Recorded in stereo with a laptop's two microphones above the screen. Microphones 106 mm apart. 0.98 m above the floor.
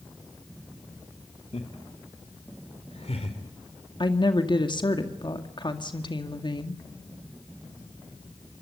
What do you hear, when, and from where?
1.5 s laughter: 75° left (ahead or behind), 2.5 m; by 3.4 s 80° left, 3.5 m
4.0 s a woman speaking: 45° left (ahead or behind), 2 m